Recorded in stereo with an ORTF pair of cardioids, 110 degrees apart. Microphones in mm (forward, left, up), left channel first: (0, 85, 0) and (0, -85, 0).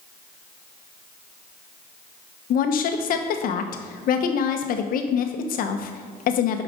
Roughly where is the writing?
I don't hear writing.